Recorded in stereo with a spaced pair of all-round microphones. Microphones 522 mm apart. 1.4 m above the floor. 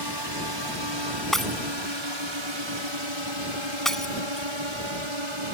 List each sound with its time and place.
0.0 s a drone: 45° right (ahead or behind); by 5.5 s 70° right (ahead or behind)
1.3 s breaking glass: centre (ahead or behind)